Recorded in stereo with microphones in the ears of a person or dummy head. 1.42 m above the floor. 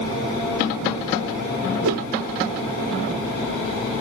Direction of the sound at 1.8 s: 70° right (ahead or behind).